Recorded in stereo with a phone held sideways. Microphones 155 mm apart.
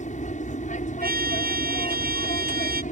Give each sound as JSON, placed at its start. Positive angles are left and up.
{"t": 0.0, "sound": "an aircraft", "side_deg": 50}
{"t": 1.0, "sound": "a trumpet", "side_deg": -75}